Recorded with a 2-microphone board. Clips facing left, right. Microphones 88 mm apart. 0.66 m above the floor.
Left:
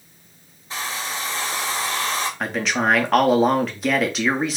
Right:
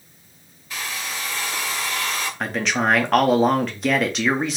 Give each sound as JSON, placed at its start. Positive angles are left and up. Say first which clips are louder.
{"t": 0.7, "sound": "a hair dryer", "louder": "left 2 dB", "side_deg": 30, "distance_m": 0.7}
{"t": 2.4, "sound": "a man speaking", "louder": "right 1 dB", "side_deg": 0, "distance_m": 0.7}